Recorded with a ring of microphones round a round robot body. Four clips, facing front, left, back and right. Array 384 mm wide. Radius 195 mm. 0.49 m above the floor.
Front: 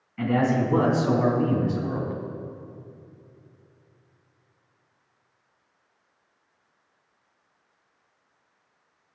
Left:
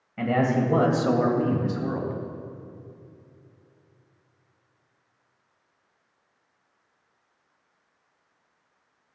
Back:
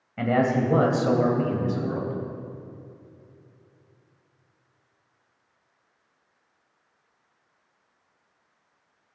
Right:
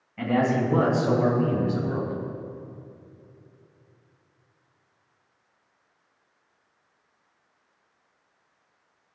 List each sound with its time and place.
0.2 s a man speaking: 155° left, 2.5 m; by 2.1 s 105° left, 3 m